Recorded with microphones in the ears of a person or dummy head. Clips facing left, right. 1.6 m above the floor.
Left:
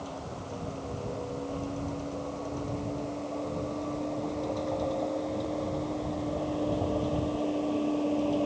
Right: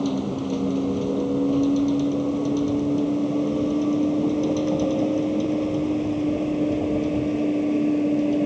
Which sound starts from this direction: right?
A vehicle, at 0.0 s.